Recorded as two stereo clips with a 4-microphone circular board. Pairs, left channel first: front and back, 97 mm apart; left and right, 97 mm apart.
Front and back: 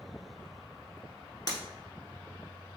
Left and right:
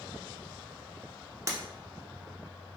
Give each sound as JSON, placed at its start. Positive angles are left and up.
{"t": 1.5, "sound": "breaking glass", "azimuth_deg": -40, "distance_m": 0.8}